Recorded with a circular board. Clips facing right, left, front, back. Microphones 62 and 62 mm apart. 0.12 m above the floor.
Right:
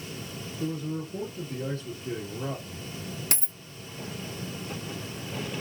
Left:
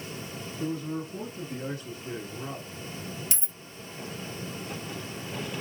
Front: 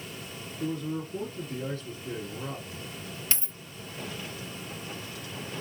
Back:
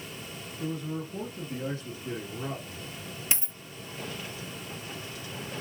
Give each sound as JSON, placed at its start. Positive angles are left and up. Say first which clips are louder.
{"t": 0.6, "sound": "a man speaking", "louder": "even, front 2 dB", "azimuth_deg": 90, "distance_m": 1.6}
{"t": 3.3, "sound": "a dropped coin", "louder": "right 5 dB, back 3 dB", "azimuth_deg": -110, "distance_m": 0.6}